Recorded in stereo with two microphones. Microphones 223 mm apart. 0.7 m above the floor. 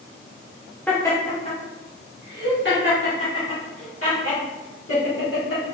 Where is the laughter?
5° left (ahead or behind), 0.9 m; by 5.8 s 75° left (ahead or behind), 2.5 m.